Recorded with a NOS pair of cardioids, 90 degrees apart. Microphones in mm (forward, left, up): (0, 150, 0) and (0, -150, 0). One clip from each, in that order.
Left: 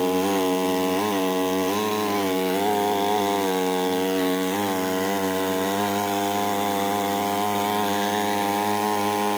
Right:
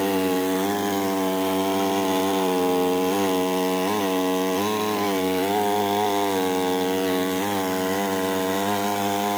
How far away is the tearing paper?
No tearing paper in this recording.